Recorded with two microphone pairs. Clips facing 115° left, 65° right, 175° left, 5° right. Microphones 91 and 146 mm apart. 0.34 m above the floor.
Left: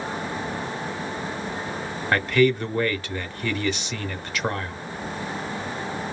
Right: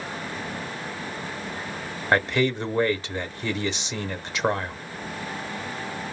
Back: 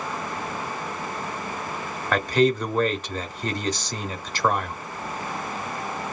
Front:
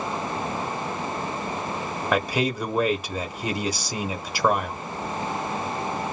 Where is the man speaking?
70° right, 0.8 m.